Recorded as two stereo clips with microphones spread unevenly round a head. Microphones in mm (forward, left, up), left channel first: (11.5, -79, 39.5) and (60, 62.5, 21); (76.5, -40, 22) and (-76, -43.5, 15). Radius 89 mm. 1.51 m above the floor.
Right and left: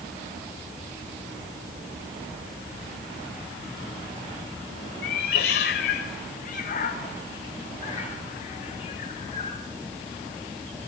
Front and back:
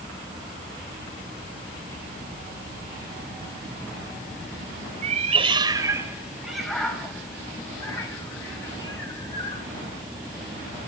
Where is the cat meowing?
140° right, 2 m; by 9.6 s 55° right, 6 m.